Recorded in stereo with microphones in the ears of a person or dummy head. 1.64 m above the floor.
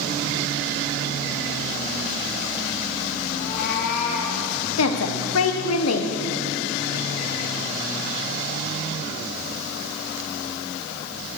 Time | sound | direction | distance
3.3 | a cat meowing | 45° left (ahead or behind) | 2.5 m
4.8 | a woman speaking | 90° left | 1.2 m